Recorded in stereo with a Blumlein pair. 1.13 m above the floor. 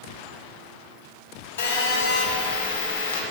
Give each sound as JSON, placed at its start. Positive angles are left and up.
{"t": 1.6, "sound": "a phone buzzing", "azimuth_deg": 65, "distance_m": 2.0}